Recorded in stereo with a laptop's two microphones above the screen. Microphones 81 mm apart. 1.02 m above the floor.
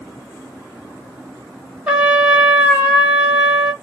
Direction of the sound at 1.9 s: 15° right (ahead or behind).